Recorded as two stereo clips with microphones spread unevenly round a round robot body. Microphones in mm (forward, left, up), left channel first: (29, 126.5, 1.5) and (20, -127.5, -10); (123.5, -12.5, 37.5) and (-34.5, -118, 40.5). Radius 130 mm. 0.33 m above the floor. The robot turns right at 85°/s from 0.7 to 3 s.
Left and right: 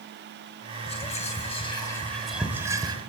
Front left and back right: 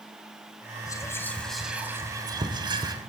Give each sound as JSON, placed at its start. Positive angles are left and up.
{"t": 0.9, "sound": "whispering", "azimuth_deg": 60, "distance_m": 0.9}